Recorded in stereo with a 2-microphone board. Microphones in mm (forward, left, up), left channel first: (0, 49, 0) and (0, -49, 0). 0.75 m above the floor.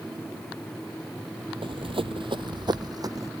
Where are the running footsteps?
60° right (ahead or behind); by 3.3 s 35° right (ahead or behind).